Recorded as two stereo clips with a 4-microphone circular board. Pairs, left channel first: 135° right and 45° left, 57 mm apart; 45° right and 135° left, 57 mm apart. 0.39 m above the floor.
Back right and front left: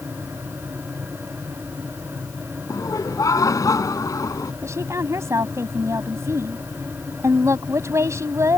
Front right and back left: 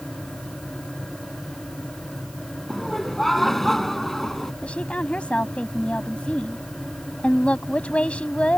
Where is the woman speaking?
25° left.